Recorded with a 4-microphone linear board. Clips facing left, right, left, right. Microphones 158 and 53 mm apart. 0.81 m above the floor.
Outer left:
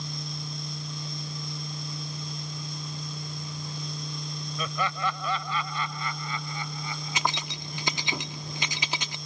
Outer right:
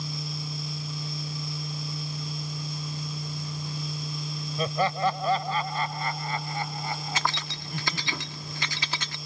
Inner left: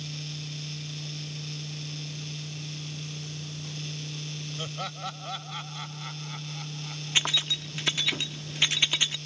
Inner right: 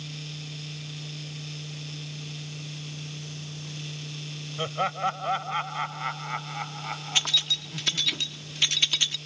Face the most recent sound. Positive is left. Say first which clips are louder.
# even, inner left 1 dB
turn(degrees=20)  # may be behind; listen again after turning